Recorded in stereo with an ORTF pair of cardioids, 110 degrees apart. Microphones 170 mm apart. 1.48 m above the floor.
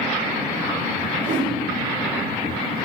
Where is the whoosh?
45° right, 1.2 m.